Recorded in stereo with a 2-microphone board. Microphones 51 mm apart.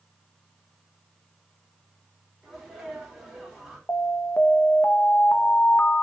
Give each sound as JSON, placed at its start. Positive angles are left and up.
{"t": 2.4, "sound": "a sneeze", "side_deg": -15, "distance_m": 4.0}
{"t": 3.9, "sound": "an alarm", "side_deg": 50, "distance_m": 0.9}